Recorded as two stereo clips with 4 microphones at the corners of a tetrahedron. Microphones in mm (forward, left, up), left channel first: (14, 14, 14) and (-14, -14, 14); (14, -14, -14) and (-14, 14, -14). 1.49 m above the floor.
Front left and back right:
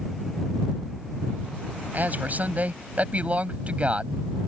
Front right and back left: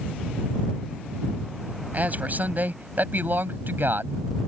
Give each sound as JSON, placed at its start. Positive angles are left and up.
{"t": 1.9, "sound": "a man speaking", "azimuth_deg": -175}